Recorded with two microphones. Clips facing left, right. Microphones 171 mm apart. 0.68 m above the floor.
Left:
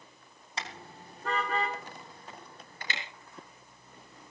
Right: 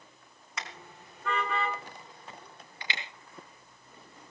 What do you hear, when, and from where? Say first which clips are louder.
0.6 s a car horn: left 2 dB; 30° left (ahead or behind), 4 m; by 3.0 s 45° left (ahead or behind), 7 m